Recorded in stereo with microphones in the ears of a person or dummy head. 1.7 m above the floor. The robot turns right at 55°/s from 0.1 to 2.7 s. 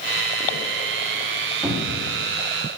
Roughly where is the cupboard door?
Centre.